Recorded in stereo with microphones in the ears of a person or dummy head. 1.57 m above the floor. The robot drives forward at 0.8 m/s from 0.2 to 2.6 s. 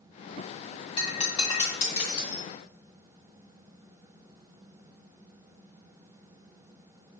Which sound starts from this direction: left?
Breaking glass, at 1.0 s.